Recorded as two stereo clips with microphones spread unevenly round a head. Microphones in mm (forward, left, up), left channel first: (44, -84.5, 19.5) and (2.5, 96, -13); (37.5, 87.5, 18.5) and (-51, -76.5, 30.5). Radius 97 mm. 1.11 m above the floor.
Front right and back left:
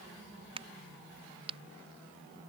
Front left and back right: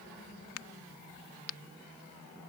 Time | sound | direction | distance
0.6 | a crack | 40° left | ?